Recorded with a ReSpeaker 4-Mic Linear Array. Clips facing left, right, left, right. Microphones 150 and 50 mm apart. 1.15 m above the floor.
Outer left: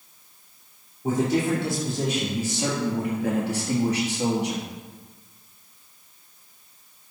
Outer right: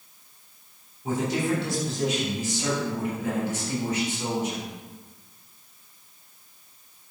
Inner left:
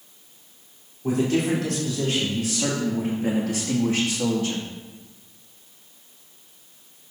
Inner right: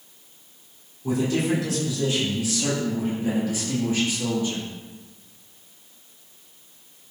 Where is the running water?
I don't hear running water.